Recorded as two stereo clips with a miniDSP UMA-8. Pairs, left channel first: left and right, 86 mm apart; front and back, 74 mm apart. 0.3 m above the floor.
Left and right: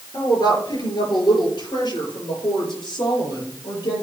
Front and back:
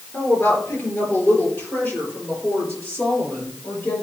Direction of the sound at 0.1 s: 60° left.